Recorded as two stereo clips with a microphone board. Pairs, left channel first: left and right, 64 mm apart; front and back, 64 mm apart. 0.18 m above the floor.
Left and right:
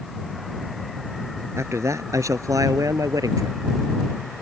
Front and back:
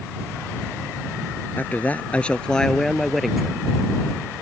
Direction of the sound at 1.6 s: 55° right.